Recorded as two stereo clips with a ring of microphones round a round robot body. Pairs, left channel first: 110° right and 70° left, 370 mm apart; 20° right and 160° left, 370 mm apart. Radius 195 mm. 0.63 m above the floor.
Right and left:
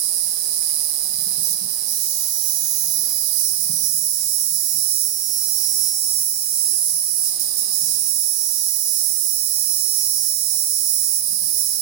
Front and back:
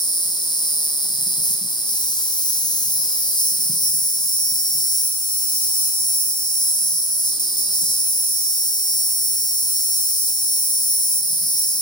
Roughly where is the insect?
Ahead left.